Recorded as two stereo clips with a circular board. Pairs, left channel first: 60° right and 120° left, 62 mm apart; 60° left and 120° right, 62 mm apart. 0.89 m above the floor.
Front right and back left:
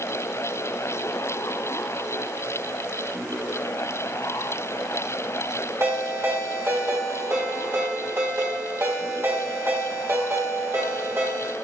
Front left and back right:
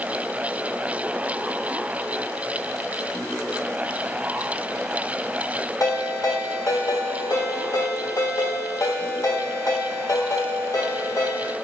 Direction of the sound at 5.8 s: 75° left.